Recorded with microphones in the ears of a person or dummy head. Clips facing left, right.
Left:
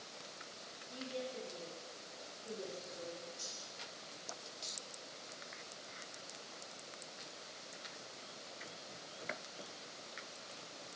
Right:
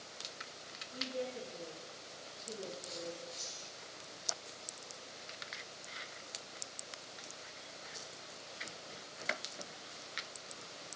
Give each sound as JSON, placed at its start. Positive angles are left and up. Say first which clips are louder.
{"t": 0.9, "sound": "a woman speaking", "louder": "right 3 dB", "side_deg": 35, "distance_m": 1.2}
{"t": 3.4, "sound": "cutlery clinking", "louder": "right 1 dB", "side_deg": -45, "distance_m": 1.4}